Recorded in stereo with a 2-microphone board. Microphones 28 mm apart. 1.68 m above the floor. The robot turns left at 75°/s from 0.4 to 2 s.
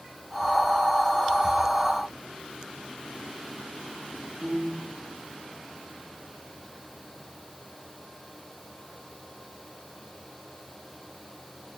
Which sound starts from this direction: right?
A piano, at 4.4 s.